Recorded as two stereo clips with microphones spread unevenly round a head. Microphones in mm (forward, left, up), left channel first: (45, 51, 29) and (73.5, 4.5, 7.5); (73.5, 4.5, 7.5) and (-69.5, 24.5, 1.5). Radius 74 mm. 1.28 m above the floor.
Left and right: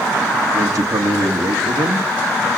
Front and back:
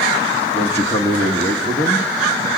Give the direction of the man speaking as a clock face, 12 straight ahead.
3 o'clock.